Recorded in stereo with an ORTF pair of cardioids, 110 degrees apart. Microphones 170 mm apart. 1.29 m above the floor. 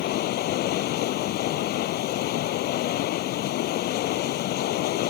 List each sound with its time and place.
0.0 s running water: 70° left